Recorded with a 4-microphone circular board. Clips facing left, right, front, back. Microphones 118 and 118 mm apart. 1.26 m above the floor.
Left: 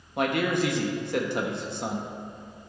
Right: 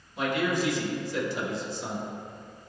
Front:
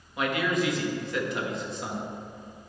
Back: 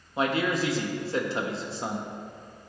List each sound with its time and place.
0.2 s a man speaking: 120° left, 1.2 m